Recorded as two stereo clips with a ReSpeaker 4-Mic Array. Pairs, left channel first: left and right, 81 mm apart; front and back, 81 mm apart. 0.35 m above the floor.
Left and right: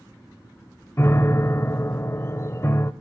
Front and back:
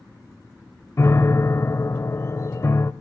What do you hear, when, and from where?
1.0 s a piano: 45° left, 0.6 m